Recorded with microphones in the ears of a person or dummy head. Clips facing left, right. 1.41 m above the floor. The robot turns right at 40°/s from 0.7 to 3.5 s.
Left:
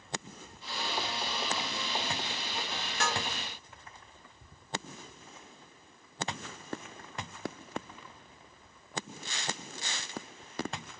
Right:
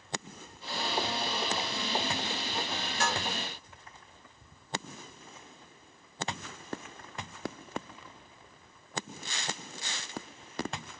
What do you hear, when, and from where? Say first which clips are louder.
3.0 s dishes clattering: right 1 dB; 55° left (ahead or behind), 1.1 m